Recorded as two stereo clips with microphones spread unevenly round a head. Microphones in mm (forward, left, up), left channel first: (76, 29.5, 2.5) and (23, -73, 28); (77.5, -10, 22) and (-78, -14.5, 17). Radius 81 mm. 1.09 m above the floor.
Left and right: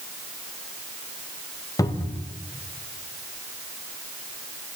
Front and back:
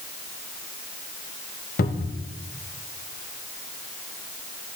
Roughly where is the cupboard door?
Ahead.